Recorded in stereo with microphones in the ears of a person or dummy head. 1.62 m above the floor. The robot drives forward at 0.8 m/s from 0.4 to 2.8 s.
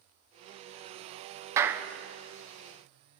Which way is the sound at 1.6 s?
10° right (ahead or behind).